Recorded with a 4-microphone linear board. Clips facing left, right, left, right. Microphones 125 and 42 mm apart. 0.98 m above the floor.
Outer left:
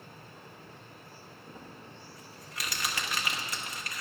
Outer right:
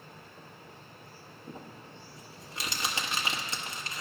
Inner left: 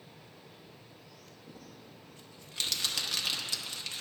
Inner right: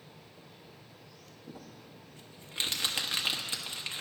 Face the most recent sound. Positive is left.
turn(degrees=-25)  # may be behind; listen again after turning